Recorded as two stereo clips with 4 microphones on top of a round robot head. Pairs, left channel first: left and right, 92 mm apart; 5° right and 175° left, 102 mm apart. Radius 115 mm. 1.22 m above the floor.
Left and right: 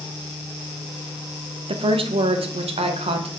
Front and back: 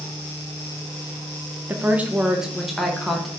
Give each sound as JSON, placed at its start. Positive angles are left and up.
{"t": 1.7, "sound": "a woman speaking", "azimuth_deg": -115, "distance_m": 0.9}